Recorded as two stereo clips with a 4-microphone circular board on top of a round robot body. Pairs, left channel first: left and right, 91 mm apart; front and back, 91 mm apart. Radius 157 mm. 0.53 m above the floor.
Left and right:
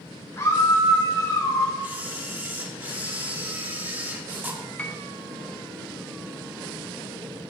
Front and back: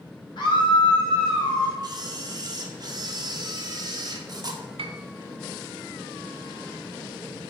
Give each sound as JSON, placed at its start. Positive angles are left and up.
{"t": 0.4, "sound": "a scream", "azimuth_deg": 30, "distance_m": 3.5}
{"t": 1.8, "sound": "a camera shutter", "azimuth_deg": -155, "distance_m": 1.9}
{"t": 4.8, "sound": "a piano", "azimuth_deg": 165, "distance_m": 1.0}